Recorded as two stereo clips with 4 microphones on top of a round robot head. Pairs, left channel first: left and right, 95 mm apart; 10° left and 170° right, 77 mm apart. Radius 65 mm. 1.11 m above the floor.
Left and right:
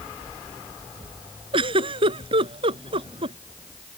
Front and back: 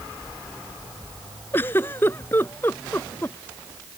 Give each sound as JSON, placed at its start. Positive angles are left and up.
{"t": 1.5, "sound": "a giggle", "azimuth_deg": -60}